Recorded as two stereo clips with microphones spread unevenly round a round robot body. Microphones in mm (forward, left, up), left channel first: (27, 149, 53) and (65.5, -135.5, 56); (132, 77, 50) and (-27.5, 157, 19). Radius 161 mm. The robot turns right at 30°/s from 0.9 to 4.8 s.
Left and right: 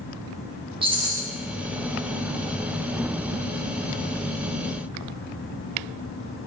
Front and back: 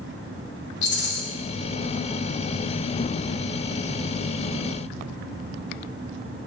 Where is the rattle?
10° right, 0.6 m; by 1.2 s straight ahead, 0.6 m.